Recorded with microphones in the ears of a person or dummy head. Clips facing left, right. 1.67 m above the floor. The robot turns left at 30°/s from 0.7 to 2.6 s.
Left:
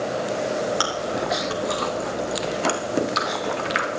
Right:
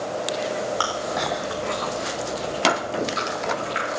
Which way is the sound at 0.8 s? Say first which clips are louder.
Left 1 dB; 15° left (ahead or behind).